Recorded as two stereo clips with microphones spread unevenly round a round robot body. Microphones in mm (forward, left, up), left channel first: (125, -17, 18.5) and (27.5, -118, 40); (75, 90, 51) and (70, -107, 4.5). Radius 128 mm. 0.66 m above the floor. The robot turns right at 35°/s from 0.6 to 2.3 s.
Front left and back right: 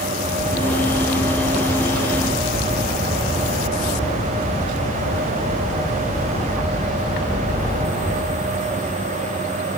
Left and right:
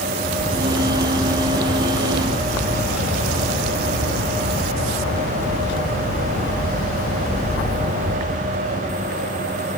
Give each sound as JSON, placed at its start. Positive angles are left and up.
{"t": 0.2, "sound": "a bird", "azimuth_deg": 25, "distance_m": 6.0}